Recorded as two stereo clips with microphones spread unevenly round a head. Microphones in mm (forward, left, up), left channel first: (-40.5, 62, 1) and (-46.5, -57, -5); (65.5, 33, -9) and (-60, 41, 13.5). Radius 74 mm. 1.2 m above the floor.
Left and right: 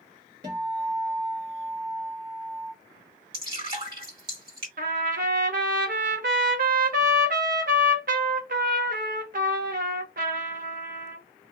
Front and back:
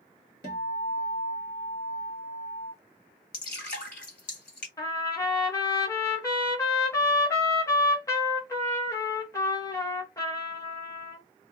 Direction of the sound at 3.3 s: 40° right.